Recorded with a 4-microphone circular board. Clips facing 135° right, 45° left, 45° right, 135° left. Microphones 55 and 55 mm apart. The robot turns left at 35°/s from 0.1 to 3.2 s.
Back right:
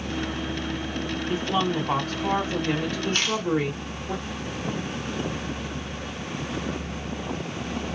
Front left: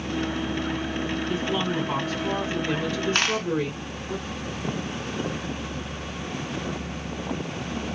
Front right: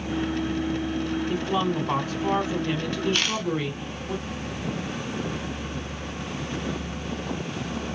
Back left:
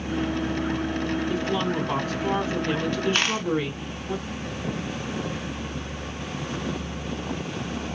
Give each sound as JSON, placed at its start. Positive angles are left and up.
{"t": 1.3, "sound": "a woman speaking", "azimuth_deg": -75, "distance_m": 2.5}
{"t": 3.1, "sound": "a dropped coin", "azimuth_deg": 85, "distance_m": 0.7}